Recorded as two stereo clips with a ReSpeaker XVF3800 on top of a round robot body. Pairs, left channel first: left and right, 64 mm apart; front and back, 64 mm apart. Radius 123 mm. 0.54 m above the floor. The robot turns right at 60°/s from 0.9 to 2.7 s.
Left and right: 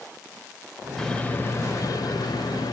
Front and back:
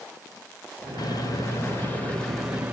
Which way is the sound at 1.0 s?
5° left.